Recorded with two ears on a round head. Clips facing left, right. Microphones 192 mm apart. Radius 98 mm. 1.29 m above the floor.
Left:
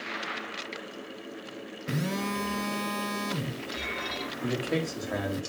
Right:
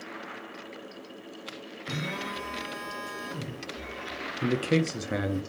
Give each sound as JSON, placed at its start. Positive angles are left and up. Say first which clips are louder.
{"t": 1.9, "sound": "a phone buzzing", "louder": "left 5 dB", "side_deg": 45, "distance_m": 0.5}
{"t": 4.4, "sound": "a man speaking", "louder": "right 4 dB", "side_deg": -35, "distance_m": 0.6}